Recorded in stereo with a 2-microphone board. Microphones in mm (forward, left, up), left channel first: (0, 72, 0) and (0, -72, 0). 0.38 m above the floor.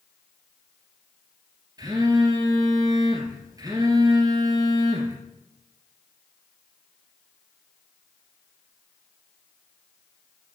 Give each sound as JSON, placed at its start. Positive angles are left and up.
{"t": 1.8, "sound": "a phone buzzing", "side_deg": -25, "distance_m": 2.5}